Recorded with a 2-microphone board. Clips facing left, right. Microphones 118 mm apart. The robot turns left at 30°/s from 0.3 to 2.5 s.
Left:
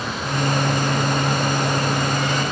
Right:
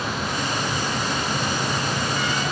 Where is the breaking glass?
I don't hear breaking glass.